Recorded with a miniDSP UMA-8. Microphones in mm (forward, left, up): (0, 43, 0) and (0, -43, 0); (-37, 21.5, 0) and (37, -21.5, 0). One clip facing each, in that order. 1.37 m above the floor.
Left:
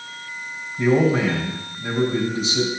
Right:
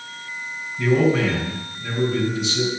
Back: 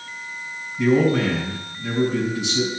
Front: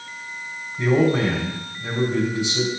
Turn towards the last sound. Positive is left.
turn(degrees=30)